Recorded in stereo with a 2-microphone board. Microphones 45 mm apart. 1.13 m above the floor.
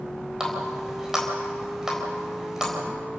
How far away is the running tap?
About 4 m.